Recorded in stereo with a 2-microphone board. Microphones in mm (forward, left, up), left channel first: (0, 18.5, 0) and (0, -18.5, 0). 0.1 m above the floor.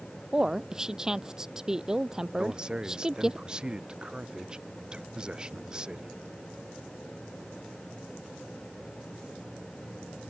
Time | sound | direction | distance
0.3 | a woman speaking | 15° right (ahead or behind) | ?
2.4 | a man speaking | 25° right (ahead or behind) | ?